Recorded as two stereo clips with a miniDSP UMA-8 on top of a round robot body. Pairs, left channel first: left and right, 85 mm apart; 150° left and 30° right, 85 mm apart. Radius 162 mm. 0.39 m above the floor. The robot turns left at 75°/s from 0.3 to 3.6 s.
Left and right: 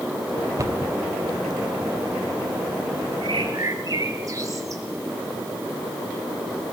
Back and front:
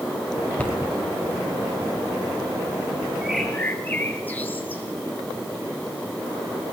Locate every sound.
0.6 s a cupboard door: 135° right, 3 m; by 0.9 s 160° right, 3 m
3.2 s a bird: 110° right, 2 m; by 4.8 s 140° right, 2 m